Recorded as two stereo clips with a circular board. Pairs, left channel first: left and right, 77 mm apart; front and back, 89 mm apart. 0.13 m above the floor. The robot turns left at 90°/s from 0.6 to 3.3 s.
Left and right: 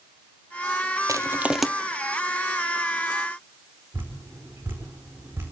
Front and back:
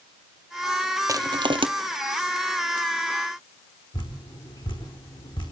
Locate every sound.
1.1 s crushing: 130° right, 1.0 m; by 1.7 s 175° left, 1.0 m
3.9 s dripping: 25° right, 4.5 m